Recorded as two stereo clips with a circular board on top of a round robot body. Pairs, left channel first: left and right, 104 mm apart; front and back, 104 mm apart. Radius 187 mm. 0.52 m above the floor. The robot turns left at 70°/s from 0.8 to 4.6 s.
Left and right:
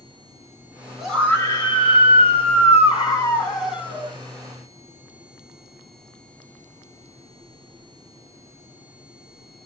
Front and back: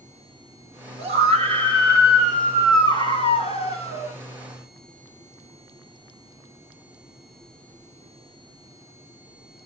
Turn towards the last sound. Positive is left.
turn(degrees=-70)